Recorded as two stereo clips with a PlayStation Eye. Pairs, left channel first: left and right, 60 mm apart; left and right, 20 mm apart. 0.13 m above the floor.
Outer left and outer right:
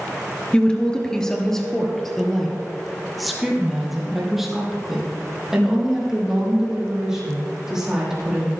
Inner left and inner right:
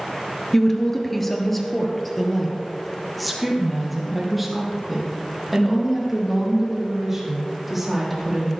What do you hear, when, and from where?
0.5 s a woman speaking: 15° left (ahead or behind), 1.7 m; by 8.5 s 10° right (ahead or behind), 6 m